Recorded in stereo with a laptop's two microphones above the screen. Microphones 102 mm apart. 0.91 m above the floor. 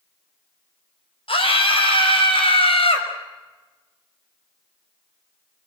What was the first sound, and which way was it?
A scream, 70° left (ahead or behind).